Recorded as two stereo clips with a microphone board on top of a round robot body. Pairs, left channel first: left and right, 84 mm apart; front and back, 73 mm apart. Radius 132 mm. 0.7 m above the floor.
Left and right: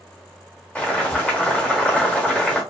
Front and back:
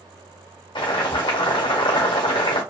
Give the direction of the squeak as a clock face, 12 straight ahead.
I don't hear a squeak.